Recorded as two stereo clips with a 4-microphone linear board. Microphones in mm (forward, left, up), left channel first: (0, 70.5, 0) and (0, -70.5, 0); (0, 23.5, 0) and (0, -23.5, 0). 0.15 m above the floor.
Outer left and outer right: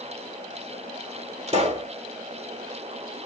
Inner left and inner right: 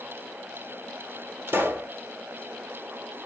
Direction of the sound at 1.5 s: 55° right (ahead or behind).